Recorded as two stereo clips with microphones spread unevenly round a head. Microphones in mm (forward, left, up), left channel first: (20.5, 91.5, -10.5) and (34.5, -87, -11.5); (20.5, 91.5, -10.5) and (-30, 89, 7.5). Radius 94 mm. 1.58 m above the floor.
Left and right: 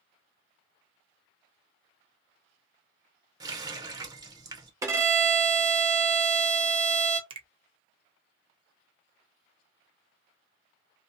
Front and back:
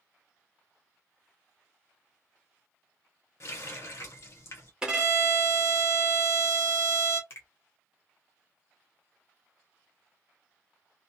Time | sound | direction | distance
3.4 | a running tap | 30° right | 0.7 m
4.8 | a violin | 150° right | 0.7 m
7.3 | a finger snap | 45° right | 0.6 m